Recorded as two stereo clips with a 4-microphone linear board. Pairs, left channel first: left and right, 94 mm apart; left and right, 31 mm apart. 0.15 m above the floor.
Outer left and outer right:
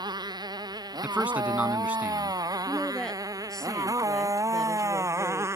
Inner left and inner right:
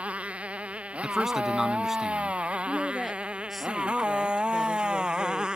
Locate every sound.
0.0 s a motorcycle: 45° right (ahead or behind); by 5.6 s 30° right (ahead or behind)
1.0 s a man speaking: 15° right (ahead or behind)
2.7 s a woman speaking: 5° left (ahead or behind)